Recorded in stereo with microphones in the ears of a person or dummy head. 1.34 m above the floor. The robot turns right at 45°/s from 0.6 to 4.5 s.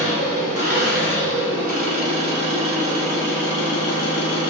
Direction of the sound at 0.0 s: 115° right.